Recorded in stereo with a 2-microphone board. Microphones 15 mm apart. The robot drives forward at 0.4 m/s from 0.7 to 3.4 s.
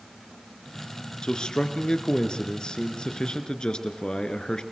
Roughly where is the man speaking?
Left.